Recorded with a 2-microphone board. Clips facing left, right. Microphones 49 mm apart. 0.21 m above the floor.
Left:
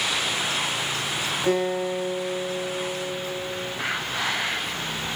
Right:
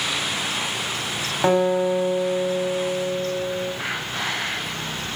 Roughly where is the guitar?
Right.